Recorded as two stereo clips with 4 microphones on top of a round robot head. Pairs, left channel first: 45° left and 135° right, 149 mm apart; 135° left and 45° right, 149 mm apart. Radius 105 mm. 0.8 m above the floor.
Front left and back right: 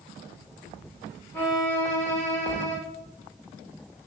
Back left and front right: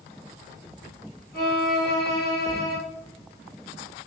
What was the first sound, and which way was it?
A violin, 125° left.